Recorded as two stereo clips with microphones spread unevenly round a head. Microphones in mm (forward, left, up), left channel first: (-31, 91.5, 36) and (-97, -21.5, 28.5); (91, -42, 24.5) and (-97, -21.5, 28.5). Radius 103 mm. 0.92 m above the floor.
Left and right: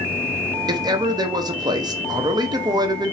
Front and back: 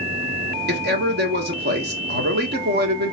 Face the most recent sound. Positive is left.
turn(degrees=-170)